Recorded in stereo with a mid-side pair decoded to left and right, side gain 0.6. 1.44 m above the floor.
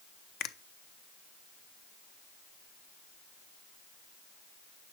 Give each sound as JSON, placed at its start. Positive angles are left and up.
{"t": 0.4, "sound": "a finger snap", "azimuth_deg": 65, "distance_m": 0.6}